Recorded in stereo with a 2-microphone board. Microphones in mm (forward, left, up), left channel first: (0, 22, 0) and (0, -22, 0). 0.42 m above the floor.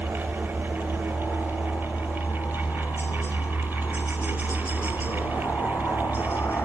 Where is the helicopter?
55° left (ahead or behind).